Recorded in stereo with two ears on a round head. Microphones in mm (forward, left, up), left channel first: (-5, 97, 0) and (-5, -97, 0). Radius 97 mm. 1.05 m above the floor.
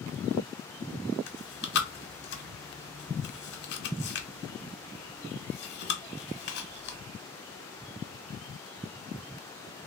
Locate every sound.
1.3 s chewing: 50° left (ahead or behind), 0.9 m